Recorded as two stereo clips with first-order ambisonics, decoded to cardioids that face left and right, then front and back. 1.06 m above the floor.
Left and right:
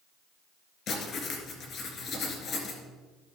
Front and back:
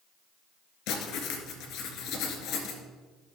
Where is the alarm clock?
No alarm clock in this recording.